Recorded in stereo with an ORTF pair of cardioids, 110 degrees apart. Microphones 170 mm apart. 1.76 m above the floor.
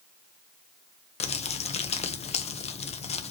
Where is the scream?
No scream in this recording.